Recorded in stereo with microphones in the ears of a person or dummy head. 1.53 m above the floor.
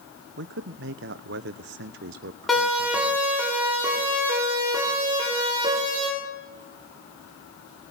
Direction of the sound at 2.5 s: Centre (ahead or behind).